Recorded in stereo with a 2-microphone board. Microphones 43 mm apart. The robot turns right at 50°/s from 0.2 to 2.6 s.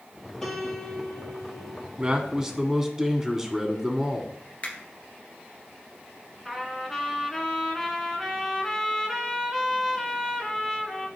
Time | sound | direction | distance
0.4 | a piano | 15° left | 2 m
2.0 | a man speaking | 50° right | 1.6 m
4.6 | a finger snap | 30° left (ahead or behind) | 2 m
6.5 | a trumpet | 5° right (ahead or behind) | 1.9 m